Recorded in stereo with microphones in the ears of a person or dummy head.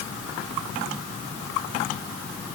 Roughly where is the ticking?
I don't hear ticking.